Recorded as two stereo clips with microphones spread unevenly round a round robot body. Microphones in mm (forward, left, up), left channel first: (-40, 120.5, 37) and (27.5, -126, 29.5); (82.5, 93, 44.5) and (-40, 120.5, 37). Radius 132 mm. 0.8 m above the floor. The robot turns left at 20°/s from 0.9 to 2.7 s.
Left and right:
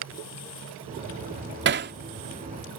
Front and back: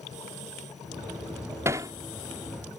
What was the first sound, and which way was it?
Hammering, 120° right.